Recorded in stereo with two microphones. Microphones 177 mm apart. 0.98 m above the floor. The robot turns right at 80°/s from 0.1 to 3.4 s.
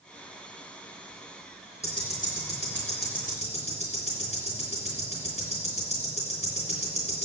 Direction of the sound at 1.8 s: 15° left (ahead or behind).